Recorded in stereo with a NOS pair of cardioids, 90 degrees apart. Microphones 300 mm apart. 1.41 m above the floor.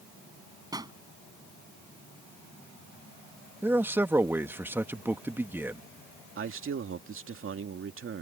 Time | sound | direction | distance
0.7 | a pop | 15° right | ?
3.6 | a man speaking | 5° right | ?
6.4 | a man speaking | 45° right | ?